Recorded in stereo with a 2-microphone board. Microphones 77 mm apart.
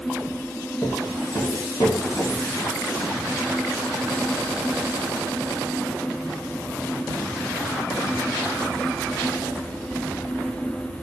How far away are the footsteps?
About 1.1 m.